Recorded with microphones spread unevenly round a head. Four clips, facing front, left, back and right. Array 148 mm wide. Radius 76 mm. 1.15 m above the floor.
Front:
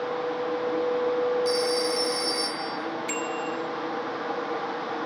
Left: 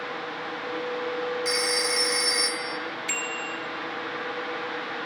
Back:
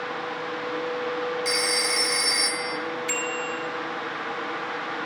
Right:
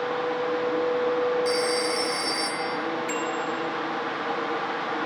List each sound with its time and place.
1.4 s a phone ringing: 130° left, 1.9 m
3.1 s a bicycle bell: 95° left, 4 m